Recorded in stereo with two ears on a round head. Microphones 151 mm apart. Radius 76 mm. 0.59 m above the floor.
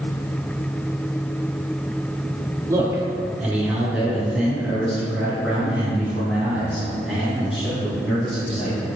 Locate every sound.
2.7 s a man speaking: 25° right (ahead or behind), 1.3 m; by 8.9 s 10° left (ahead or behind), 9 m